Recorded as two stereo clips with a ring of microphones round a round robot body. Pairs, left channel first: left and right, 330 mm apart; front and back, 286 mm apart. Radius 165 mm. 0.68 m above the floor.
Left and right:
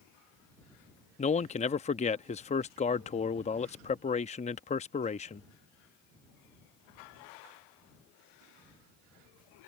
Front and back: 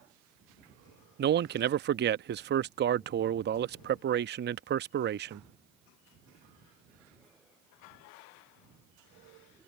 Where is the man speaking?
150° left.